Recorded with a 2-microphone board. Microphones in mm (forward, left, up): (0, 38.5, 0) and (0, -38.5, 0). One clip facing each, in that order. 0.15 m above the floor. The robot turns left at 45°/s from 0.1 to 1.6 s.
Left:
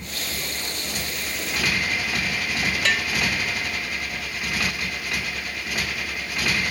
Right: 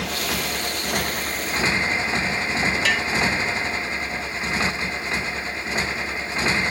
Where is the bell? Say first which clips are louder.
Right 1 dB; centre (ahead or behind).